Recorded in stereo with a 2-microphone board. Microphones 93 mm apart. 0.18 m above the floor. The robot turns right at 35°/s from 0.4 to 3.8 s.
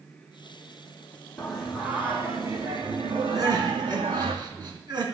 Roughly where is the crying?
Right.